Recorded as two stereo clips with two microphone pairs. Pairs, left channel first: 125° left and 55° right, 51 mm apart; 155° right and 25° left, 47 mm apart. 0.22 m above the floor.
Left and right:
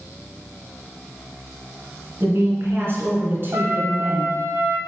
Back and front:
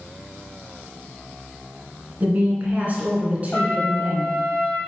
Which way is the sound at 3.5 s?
85° right.